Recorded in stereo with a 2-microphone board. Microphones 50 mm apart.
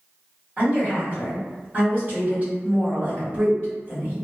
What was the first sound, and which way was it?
A woman speaking, 30° right (ahead or behind).